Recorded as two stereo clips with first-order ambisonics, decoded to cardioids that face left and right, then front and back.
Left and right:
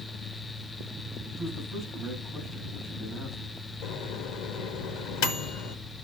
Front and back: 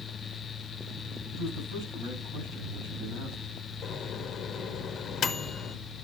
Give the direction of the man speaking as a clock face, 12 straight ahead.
7 o'clock.